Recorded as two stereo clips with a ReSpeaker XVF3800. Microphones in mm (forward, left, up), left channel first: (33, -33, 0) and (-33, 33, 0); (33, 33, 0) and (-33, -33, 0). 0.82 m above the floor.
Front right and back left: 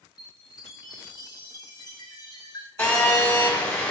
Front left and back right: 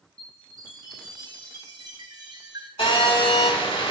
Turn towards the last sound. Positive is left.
turn(degrees=20)